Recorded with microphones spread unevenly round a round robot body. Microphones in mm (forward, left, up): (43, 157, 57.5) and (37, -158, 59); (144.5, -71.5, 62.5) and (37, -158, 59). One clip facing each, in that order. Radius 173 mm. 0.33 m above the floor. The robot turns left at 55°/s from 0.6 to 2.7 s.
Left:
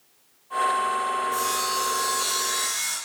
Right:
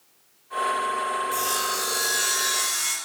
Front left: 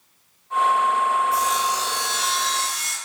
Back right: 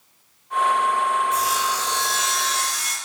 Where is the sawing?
40° right, 1.5 m; by 3.0 s 115° right, 1.5 m.